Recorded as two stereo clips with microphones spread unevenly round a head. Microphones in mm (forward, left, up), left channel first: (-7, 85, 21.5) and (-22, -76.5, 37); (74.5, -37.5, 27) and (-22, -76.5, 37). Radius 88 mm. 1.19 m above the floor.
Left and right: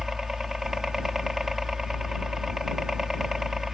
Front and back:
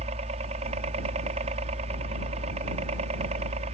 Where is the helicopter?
175° left.